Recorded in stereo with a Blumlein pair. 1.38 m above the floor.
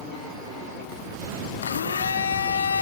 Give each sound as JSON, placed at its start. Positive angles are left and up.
{"t": 1.6, "sound": "a blender", "azimuth_deg": 70, "distance_m": 0.8}